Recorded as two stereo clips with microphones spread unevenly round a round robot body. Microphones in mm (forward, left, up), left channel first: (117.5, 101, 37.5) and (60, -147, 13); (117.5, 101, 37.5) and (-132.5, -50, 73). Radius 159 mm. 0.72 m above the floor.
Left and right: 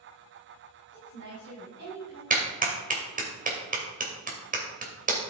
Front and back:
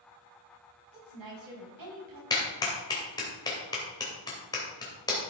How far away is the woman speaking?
About 4.5 m.